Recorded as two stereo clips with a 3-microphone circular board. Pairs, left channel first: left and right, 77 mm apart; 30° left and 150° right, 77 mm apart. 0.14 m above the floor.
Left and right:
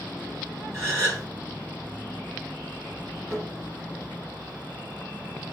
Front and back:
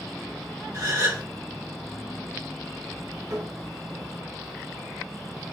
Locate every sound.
0.7 s a gasp: 135° right, 2.0 m
3.3 s tapping: 135° right, 2 m